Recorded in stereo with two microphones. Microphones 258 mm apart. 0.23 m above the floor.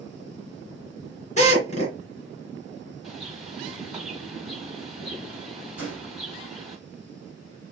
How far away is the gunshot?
About 4 m.